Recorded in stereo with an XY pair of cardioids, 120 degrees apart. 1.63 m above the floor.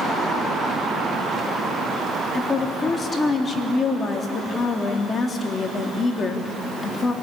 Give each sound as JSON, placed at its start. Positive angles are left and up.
{"t": 2.3, "sound": "a woman speaking", "azimuth_deg": 30, "distance_m": 3.5}